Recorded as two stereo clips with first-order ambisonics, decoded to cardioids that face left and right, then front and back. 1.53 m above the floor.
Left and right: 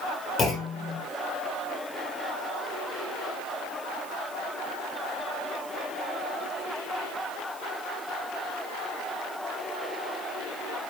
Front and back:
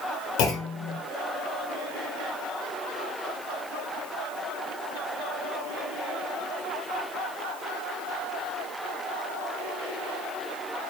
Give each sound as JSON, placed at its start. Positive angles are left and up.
{"t": 0.4, "sound": "a clunk", "azimuth_deg": 25, "distance_m": 3.5}